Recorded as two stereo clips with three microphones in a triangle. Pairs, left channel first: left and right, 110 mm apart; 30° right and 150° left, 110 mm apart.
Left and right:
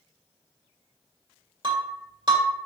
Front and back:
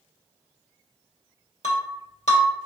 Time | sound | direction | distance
1.6 | breaking glass | 45° right | 1.3 m